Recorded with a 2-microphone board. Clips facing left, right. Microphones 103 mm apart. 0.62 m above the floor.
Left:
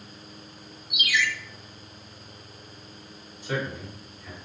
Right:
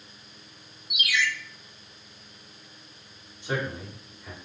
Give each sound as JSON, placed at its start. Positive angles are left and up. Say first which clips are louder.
{"t": 0.9, "sound": "a ringtone", "louder": "left 1 dB", "side_deg": -70, "distance_m": 0.8}
{"t": 3.4, "sound": "a man speaking", "louder": "even", "side_deg": -25, "distance_m": 1.6}